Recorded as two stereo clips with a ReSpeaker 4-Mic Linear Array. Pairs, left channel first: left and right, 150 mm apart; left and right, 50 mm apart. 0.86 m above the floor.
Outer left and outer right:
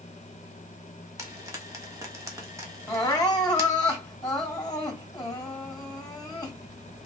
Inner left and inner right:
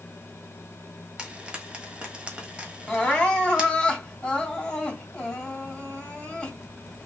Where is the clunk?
No clunk in this recording.